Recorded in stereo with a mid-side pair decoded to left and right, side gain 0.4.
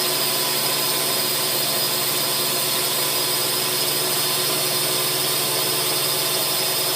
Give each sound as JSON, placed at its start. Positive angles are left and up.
{"t": 0.0, "sound": "a drone", "azimuth_deg": -20}